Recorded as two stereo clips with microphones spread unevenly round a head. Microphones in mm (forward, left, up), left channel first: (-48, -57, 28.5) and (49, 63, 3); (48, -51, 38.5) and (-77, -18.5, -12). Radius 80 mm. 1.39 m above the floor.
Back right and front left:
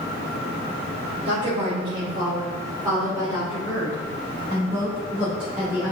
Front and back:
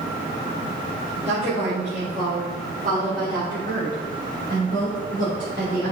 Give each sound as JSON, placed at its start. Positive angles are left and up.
{"t": 1.2, "sound": "a woman speaking", "azimuth_deg": 110, "distance_m": 4.0}